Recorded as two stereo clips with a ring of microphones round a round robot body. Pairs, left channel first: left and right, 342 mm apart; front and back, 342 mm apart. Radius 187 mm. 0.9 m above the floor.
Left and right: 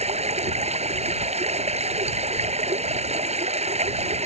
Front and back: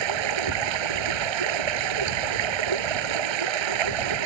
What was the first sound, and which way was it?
Running water, 160° right.